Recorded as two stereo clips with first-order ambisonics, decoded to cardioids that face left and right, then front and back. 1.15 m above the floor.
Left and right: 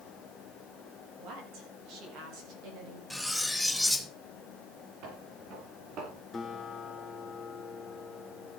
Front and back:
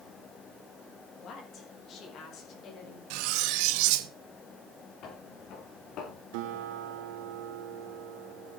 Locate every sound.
1.2 s a woman speaking: 55° right, 7.5 m
3.1 s cutlery clinking: straight behind, 0.9 m
5.0 s footsteps: 55° right, 6.5 m; by 6.2 s 45° right, 6.5 m
6.3 s a guitar: 170° left, 3 m